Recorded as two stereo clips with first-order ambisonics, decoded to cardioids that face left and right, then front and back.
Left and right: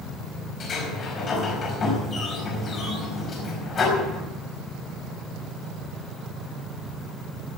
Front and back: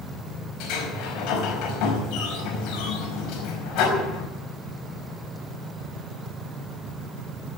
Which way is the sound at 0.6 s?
30° left.